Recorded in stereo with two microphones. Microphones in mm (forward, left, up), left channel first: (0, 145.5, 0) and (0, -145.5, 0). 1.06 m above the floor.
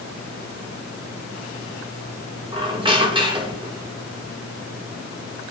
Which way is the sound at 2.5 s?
15° right (ahead or behind).